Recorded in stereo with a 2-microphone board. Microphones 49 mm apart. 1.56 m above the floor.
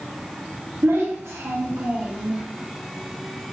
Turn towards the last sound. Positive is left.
turn(degrees=-20)  # may be behind; listen again after turning